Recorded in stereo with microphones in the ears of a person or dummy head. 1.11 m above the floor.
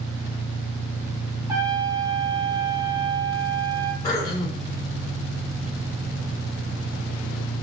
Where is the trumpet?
15° right (ahead or behind), 0.6 m.